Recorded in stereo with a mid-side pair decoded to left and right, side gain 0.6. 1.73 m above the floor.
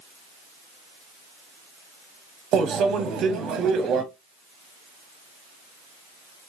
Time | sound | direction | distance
2.5 | a microwave | 50° right | 0.9 m